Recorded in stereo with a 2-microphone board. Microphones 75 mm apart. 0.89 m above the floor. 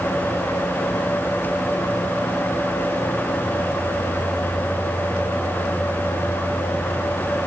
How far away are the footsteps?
I don't hear footsteps.